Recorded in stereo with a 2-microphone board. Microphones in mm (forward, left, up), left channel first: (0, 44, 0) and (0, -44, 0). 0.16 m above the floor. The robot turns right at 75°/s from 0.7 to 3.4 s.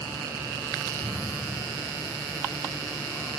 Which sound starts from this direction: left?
A thud, at 1.0 s.